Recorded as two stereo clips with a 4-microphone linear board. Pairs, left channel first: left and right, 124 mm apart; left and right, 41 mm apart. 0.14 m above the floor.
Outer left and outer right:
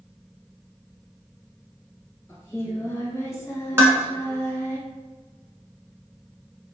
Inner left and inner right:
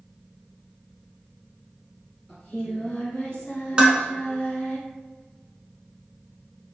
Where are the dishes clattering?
20° right (ahead or behind), 0.8 m.